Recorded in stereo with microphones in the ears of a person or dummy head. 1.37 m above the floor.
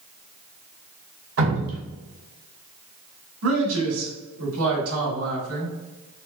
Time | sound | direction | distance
1.4 | dripping | 70° right (ahead or behind) | 1.4 m
3.4 | a man speaking | 85° right | 1.9 m